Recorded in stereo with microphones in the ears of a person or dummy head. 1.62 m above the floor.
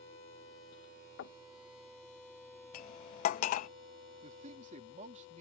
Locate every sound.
1.2 s knocking: 80° left
2.7 s cutlery clinking: 40° left (ahead or behind)
4.2 s a man speaking: 35° right (ahead or behind)